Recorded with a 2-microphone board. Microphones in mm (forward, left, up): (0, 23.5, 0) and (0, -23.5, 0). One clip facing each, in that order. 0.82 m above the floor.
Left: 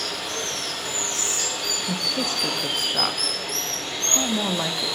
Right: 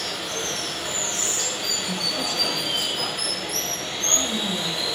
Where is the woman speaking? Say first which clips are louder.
Left 2 dB; 50° left (ahead or behind), 0.5 m.